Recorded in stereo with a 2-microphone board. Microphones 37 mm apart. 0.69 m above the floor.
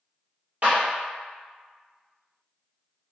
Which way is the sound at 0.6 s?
50° right (ahead or behind).